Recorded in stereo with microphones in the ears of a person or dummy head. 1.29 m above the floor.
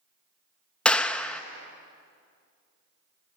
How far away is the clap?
About 0.8 m.